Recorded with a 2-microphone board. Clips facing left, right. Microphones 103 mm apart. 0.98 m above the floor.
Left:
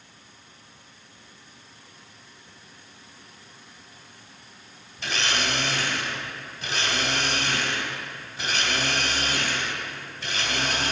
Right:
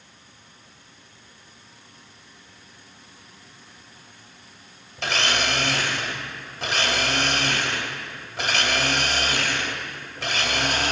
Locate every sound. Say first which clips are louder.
5.0 s a blender: right 3 dB; 75° right (ahead or behind), 2 m